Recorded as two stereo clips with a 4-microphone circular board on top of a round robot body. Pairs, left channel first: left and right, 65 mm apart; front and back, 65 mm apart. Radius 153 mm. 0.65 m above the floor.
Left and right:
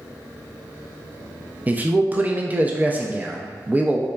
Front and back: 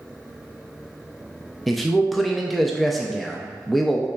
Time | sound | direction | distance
1.7 | a man speaking | 85° right | 0.5 m